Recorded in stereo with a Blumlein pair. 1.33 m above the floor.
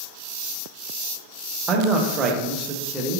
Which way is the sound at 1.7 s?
20° right.